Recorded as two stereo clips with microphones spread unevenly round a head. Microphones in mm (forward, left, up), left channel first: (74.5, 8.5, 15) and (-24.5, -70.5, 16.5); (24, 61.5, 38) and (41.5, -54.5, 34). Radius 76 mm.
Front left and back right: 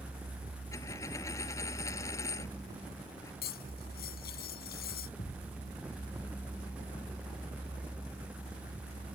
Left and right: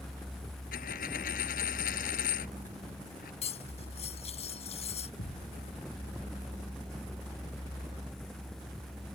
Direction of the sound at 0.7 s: 110° left.